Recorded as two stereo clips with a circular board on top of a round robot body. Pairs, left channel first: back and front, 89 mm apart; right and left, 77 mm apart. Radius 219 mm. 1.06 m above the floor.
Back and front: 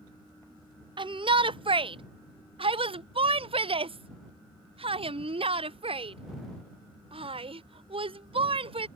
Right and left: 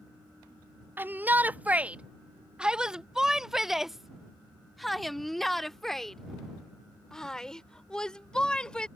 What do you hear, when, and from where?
1.0 s a shout: 25° left; by 8.9 s 10° right